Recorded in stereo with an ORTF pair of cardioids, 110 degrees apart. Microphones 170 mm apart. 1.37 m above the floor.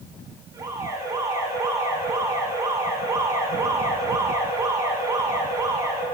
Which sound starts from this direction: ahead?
An alarm, at 0.5 s.